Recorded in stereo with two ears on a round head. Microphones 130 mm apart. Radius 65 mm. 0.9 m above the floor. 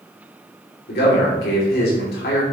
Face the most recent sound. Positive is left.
turn(degrees=75)  # may be behind; listen again after turning